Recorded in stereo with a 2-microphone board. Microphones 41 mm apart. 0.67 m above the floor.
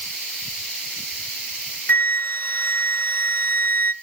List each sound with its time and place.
1.9 s a flute: 50° left (ahead or behind), 0.6 m